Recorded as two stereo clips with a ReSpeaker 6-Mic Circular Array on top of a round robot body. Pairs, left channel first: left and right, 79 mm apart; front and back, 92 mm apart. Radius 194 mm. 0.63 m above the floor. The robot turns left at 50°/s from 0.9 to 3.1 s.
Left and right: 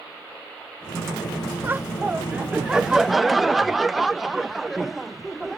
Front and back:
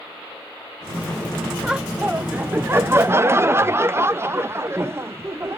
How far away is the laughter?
About 0.6 m.